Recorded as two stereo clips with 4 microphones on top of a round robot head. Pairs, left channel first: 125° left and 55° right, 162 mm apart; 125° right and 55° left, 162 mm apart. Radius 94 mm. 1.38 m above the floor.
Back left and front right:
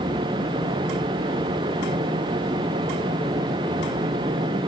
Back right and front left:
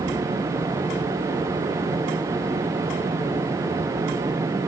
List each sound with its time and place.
Only background noise.